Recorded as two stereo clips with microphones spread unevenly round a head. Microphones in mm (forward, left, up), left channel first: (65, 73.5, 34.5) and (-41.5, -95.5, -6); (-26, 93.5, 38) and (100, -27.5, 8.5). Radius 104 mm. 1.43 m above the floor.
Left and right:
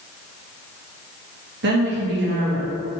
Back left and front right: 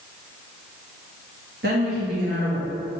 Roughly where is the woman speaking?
Right.